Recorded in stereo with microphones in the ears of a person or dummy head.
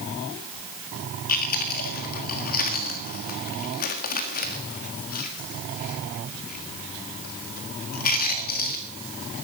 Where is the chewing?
45° left (ahead or behind), 1.6 m.